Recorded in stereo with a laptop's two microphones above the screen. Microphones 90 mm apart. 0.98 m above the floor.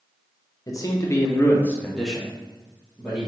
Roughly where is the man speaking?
Left.